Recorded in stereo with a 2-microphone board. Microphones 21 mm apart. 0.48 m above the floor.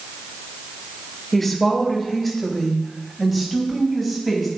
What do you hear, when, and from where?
1.3 s a woman speaking: 10° left (ahead or behind), 2 m; by 4.5 s 5° right (ahead or behind), 4 m